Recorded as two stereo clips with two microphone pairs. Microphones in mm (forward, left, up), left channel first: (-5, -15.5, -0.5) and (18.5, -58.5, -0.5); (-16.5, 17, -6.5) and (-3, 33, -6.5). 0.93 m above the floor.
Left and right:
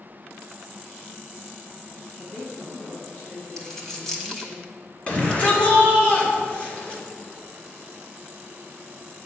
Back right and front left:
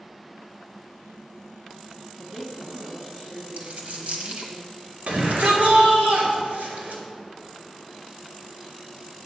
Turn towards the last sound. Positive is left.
turn(degrees=60)